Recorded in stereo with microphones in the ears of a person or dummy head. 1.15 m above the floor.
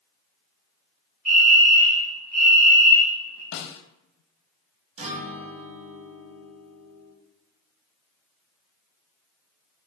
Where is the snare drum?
65° left (ahead or behind), 0.8 m.